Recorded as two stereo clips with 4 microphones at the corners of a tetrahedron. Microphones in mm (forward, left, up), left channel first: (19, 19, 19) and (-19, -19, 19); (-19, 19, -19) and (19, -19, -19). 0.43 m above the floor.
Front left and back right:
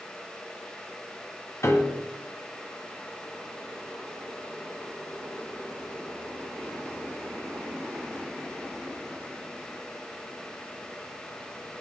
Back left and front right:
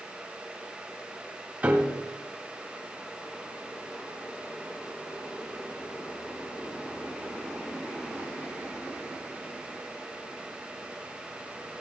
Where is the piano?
15° left, 1.9 m.